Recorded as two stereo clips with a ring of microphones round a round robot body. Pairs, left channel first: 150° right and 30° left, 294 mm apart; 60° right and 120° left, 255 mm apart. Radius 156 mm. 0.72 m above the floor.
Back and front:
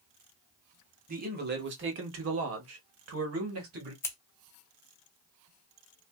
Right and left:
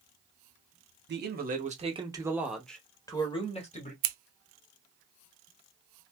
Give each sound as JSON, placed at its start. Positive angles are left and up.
{"t": 1.1, "sound": "a man speaking", "azimuth_deg": 85, "distance_m": 1.3}
{"t": 4.0, "sound": "scissors", "azimuth_deg": 130, "distance_m": 0.6}